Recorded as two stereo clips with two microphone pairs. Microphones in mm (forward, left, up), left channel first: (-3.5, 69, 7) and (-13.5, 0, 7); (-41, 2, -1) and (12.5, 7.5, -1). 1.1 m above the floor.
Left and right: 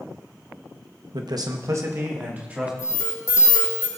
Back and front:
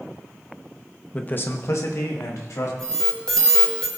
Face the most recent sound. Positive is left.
turn(degrees=115)